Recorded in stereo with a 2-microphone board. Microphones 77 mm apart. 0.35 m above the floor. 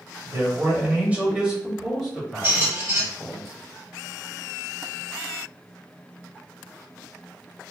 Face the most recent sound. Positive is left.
turn(degrees=-25)  # may be behind; listen again after turning